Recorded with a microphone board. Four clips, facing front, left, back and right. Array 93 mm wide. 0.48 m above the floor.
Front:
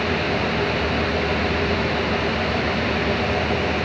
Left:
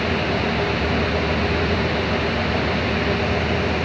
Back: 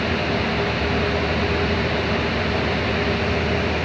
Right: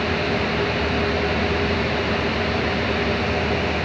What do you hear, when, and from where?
Only background noise.